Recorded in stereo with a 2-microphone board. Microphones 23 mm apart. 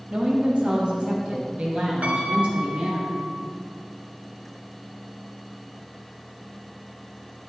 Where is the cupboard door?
I don't hear a cupboard door.